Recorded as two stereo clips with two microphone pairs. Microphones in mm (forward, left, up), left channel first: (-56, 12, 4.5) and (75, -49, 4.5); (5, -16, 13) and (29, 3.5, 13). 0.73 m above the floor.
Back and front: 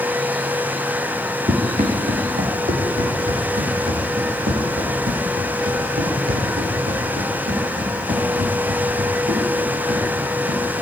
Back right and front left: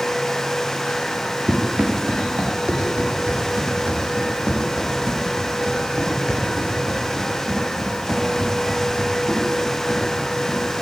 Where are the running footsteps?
5° left, 5 m; by 10.8 s 30° right, 13.5 m.